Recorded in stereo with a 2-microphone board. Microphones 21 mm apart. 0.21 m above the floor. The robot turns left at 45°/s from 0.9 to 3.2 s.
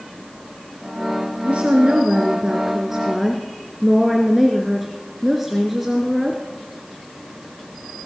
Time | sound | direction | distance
1.4 | a woman speaking | 90° right | 3 m